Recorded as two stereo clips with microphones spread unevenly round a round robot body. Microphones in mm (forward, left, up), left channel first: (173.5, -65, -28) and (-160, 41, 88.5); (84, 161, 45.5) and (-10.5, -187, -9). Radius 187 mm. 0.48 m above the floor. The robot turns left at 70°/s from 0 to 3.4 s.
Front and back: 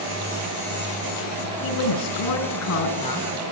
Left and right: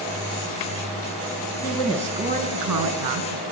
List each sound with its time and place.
1.6 s a woman speaking: 15° left, 5 m; by 3.4 s 105° right, 5 m